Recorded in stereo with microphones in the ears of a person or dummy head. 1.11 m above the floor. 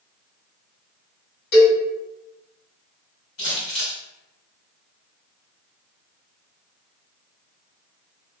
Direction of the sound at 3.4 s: 50° left (ahead or behind).